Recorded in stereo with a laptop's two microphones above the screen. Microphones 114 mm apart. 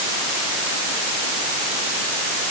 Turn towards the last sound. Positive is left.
No sound to turn to.